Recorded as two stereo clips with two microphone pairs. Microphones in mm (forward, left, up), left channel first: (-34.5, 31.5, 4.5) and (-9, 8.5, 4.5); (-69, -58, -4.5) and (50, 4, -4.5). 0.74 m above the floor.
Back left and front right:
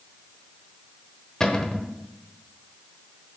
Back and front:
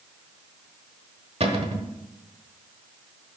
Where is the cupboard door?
65° left, 1.1 m.